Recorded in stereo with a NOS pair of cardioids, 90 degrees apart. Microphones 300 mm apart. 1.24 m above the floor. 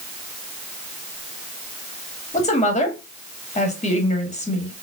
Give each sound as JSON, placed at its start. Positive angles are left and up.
{"t": 2.3, "sound": "a woman speaking", "azimuth_deg": 20, "distance_m": 2.0}